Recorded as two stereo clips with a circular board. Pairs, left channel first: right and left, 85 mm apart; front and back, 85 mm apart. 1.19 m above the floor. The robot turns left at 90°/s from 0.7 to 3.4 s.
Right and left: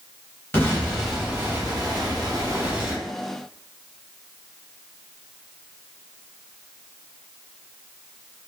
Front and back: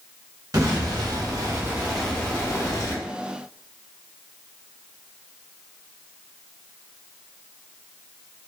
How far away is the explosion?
About 0.9 m.